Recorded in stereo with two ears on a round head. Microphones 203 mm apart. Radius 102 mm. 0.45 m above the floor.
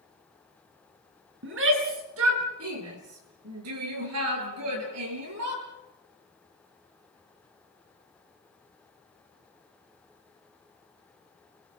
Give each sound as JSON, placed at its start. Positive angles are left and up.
{"t": 1.4, "sound": "a shout", "side_deg": -55, "distance_m": 6.0}